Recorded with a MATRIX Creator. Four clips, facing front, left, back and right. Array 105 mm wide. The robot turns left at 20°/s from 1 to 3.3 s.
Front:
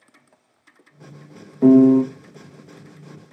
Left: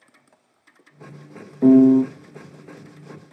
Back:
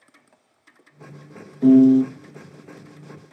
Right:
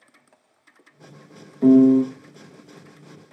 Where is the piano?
20° left, 0.5 m; by 2.0 s 15° left, 0.5 m.